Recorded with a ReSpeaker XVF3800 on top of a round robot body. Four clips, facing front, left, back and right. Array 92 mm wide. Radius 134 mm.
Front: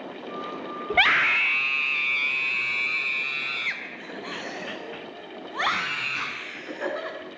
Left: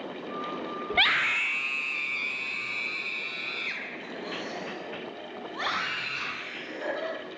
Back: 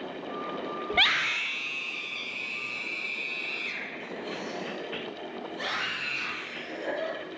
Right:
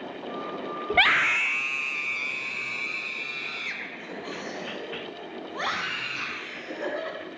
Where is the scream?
45° right, 0.8 m; by 7.2 s 5° right, 5 m.